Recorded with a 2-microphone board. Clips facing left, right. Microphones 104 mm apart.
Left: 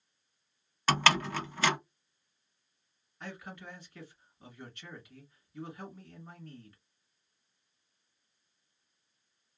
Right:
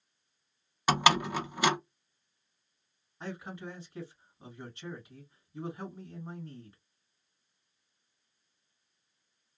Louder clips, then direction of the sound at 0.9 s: Right 2 dB; 15° right (ahead or behind).